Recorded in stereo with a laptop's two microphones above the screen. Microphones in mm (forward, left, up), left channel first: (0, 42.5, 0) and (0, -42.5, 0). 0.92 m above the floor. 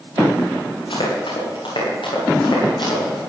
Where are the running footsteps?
75° left (ahead or behind), 7.5 m; by 3.2 s 60° left (ahead or behind), 9.5 m.